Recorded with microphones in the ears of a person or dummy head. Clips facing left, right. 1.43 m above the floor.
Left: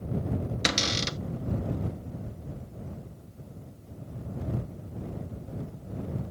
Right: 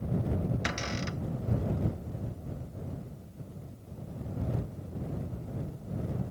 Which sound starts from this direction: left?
A cupboard door, at 0.7 s.